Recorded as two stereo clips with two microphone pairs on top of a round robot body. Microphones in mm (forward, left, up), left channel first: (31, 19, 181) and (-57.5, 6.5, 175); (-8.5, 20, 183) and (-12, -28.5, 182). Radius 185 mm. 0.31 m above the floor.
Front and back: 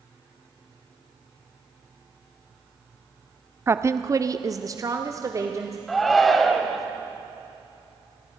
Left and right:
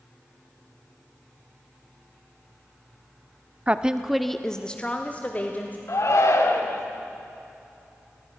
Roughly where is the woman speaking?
Behind right.